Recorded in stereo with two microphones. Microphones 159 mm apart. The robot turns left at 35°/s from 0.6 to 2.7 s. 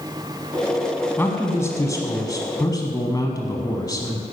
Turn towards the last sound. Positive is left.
turn(degrees=25)  # may be behind; listen again after turning